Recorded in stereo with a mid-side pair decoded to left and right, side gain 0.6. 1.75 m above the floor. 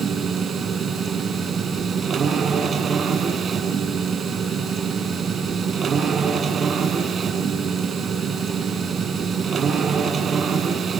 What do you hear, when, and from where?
0.0 s a machine running: 35° right, 7.5 m